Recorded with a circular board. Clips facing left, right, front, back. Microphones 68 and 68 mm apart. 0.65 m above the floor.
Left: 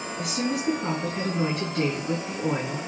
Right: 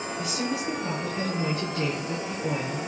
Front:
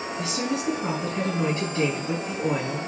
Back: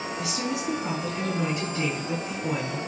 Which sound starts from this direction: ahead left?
A woman speaking, at 0.2 s.